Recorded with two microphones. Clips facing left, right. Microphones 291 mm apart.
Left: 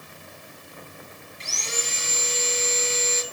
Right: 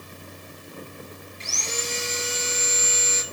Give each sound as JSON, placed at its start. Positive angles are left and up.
{"t": 1.4, "sound": "sawing", "side_deg": 20, "distance_m": 3.5}